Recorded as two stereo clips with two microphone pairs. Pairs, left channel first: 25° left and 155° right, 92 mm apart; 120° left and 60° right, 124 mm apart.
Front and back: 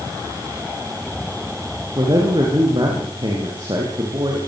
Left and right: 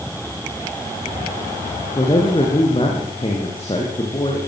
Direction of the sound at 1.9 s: 165° left.